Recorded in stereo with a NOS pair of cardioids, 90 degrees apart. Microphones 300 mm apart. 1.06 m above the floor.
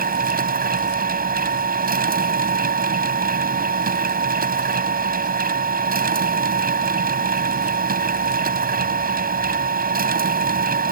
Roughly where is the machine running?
Ahead right.